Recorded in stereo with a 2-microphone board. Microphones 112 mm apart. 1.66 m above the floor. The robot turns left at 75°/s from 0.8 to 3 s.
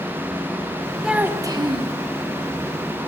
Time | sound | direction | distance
1.0 | a child speaking | 5° right | 1.1 m